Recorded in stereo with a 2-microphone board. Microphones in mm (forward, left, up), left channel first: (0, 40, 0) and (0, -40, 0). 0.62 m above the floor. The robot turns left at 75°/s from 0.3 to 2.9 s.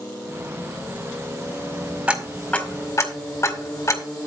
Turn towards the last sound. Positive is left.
turn(degrees=40)  # may be behind; listen again after turning